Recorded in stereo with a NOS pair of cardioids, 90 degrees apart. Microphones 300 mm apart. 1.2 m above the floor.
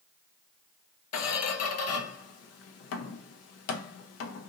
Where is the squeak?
60° left, 0.6 m.